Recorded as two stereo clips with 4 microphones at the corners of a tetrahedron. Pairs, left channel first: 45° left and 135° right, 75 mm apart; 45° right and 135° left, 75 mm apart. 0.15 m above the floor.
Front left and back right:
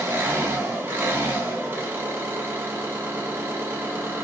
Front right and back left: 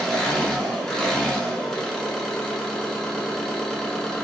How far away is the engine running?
About 0.8 m.